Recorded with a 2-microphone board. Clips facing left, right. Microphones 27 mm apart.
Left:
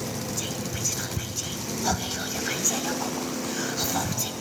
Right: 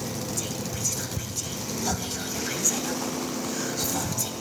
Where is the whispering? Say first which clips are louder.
Left 1 dB; 20° left (ahead or behind), 1.1 m.